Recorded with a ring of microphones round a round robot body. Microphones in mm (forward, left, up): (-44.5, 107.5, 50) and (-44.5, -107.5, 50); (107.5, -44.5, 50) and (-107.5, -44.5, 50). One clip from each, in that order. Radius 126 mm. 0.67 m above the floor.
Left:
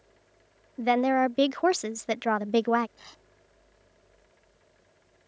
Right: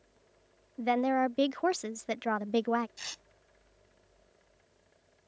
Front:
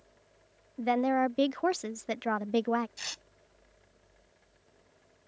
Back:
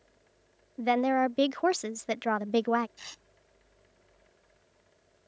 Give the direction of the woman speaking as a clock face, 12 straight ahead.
7 o'clock.